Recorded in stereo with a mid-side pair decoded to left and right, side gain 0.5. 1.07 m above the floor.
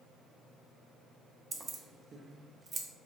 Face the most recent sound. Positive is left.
turn(degrees=-35)